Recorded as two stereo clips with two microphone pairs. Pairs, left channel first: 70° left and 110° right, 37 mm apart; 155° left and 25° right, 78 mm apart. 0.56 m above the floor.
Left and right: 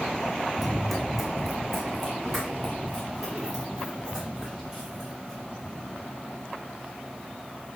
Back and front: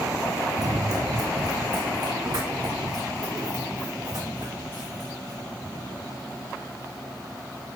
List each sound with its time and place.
0.6 s running footsteps: 15° right, 1.1 m; by 5.4 s 30° right, 5 m